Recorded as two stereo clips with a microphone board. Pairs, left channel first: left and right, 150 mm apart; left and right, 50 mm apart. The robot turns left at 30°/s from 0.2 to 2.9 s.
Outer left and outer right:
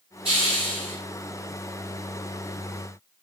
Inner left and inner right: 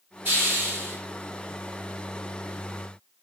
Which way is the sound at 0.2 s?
35° right (ahead or behind).